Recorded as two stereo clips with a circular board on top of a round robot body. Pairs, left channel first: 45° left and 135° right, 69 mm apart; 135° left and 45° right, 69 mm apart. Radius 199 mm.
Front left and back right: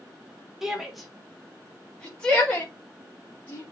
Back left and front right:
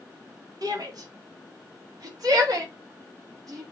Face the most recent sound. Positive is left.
turn(degrees=-20)